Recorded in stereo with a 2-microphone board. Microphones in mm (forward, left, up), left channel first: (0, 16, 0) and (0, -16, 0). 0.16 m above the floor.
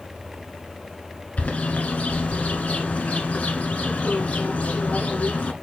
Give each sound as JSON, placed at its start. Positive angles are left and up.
{"t": 1.4, "sound": "a bird", "side_deg": 45, "distance_m": 1.3}